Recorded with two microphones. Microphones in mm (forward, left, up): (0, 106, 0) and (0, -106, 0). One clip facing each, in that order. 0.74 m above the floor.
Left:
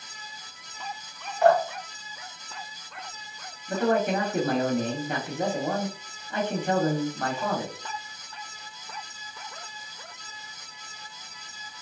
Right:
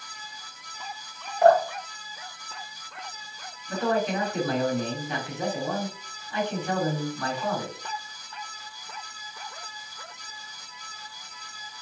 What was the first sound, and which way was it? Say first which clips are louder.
Dripping: right 2 dB; 35° right (ahead or behind).